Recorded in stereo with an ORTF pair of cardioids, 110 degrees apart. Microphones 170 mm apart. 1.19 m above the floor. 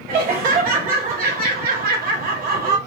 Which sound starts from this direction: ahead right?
Laughter, at 0.1 s.